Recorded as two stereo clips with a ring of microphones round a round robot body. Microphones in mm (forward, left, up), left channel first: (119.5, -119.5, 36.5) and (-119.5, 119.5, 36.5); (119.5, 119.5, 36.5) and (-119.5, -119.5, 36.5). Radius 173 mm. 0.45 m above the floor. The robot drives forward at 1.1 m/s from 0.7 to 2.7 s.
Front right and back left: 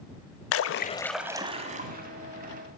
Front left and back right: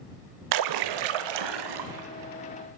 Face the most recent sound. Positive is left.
turn(degrees=-165)